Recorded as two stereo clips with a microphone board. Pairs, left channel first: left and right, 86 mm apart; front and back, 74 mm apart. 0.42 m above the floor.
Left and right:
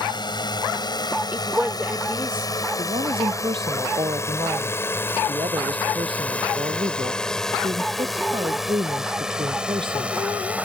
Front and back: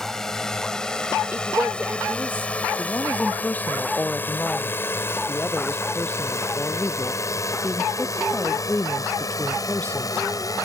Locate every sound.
0.0 s a drone: 85° left; by 10.6 s 20° right
1.3 s a woman speaking: 145° right
2.8 s a woman speaking: 70° right